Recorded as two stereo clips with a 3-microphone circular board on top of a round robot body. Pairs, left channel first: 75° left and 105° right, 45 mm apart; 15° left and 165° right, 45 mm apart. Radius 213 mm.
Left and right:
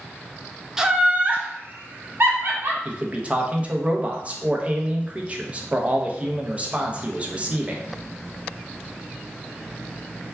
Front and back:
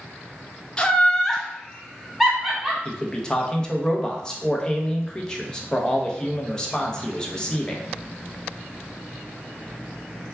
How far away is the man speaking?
About 0.8 m.